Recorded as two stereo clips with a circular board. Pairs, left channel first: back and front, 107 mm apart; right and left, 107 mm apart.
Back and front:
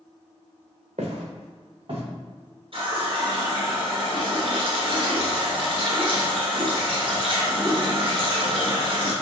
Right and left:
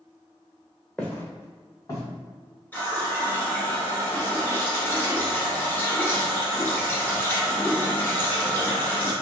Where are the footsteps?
10° right, 1.2 m; by 2.0 s 35° right, 2.5 m.